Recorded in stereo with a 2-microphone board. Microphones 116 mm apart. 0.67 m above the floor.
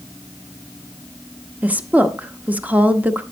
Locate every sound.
1.6 s a woman speaking: 15° right (ahead or behind), 0.8 m